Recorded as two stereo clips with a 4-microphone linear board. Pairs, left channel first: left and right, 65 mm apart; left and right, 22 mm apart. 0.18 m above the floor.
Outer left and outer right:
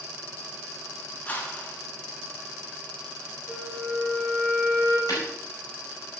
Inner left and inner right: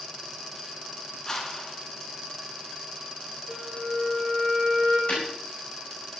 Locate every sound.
1.2 s a whoosh: 25° left (ahead or behind), 1.9 m
3.5 s a flute: 20° left (ahead or behind), 2.5 m
5.1 s breaking glass: 70° left (ahead or behind), 5 m